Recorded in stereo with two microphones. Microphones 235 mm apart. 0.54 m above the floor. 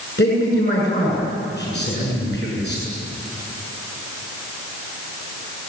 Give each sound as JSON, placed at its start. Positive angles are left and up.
{"t": 0.2, "sound": "a man speaking", "side_deg": 45, "distance_m": 8.0}